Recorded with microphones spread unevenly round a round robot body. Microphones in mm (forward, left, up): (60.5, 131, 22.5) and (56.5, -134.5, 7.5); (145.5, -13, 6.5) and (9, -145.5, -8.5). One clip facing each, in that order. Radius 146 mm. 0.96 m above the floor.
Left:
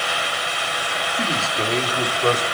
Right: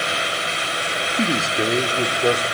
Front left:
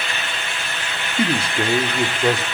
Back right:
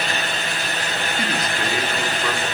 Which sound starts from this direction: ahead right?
A man speaking, at 1.2 s.